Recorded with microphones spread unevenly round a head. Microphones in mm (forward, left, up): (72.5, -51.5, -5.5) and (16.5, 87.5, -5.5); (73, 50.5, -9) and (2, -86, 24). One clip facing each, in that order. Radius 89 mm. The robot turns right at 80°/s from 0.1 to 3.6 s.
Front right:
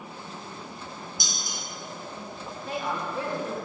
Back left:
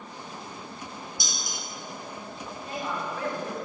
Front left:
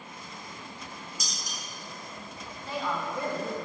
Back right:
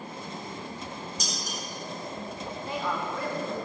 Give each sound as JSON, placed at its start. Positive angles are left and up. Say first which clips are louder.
{"t": 1.2, "sound": "dishes clattering", "louder": "even, back right 6 dB", "azimuth_deg": -25, "distance_m": 2.5}
{"t": 2.6, "sound": "a woman speaking", "louder": "front right 2 dB, even", "azimuth_deg": -55, "distance_m": 1.8}